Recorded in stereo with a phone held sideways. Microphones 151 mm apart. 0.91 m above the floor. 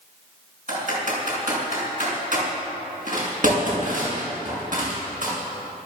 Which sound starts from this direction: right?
Typing on a keyboard, at 0.7 s.